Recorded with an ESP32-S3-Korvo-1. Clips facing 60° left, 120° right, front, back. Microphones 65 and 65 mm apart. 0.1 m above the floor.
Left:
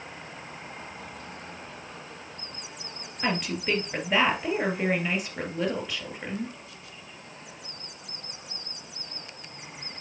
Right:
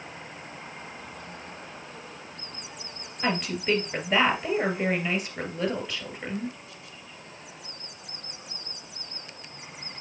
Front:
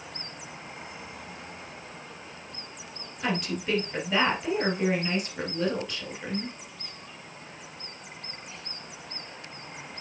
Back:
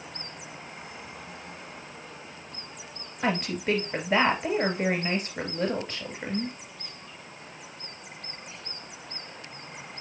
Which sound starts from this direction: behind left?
A woman speaking, at 3.2 s.